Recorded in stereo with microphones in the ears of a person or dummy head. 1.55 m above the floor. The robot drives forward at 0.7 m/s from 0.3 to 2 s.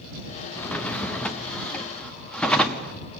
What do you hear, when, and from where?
0.6 s a drawer: 10° left (ahead or behind), 0.8 m; by 3.0 s 5° left (ahead or behind), 1.6 m